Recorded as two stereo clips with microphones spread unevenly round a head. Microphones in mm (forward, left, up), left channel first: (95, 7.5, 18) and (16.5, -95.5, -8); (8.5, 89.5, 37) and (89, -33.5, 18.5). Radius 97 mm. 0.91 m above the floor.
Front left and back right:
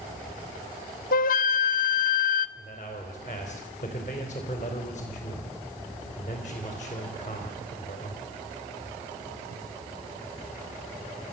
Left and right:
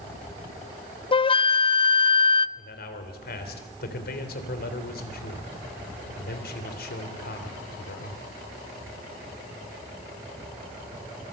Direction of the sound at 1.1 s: 70° left.